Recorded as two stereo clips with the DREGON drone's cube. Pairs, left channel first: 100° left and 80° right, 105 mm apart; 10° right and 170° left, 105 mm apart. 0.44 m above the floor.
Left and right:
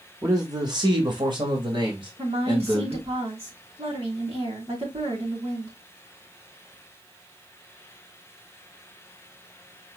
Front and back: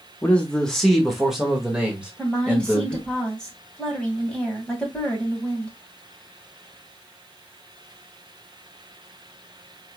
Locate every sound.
0.2 s a man speaking: 75° right, 1.0 m; by 3.0 s 115° right, 2.5 m
2.2 s a woman speaking: 90° right, 2.5 m